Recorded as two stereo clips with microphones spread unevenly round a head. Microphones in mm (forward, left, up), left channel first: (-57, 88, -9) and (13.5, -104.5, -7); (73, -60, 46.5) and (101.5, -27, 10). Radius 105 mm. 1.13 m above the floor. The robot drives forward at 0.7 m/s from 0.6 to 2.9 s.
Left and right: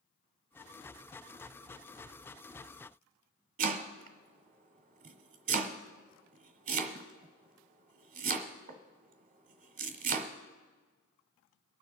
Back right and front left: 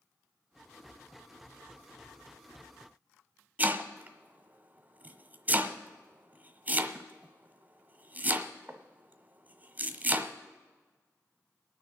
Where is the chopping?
35° right, 1.3 m.